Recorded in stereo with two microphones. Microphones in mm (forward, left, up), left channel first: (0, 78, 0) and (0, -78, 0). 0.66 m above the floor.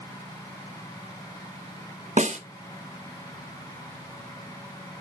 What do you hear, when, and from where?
2.2 s a snare drum: 50° right (ahead or behind), 0.9 m